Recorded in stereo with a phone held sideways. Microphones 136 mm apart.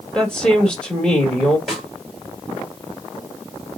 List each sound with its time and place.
0.1 s a woman speaking: 5° left (ahead or behind), 2.5 m
1.7 s a snare drum: centre (ahead or behind), 3 m